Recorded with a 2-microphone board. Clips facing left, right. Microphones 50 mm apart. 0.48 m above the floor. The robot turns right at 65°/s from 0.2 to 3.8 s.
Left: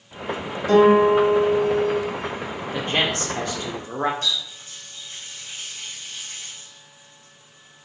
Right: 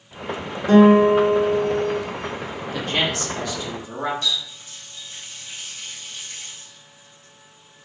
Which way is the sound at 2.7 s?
35° left.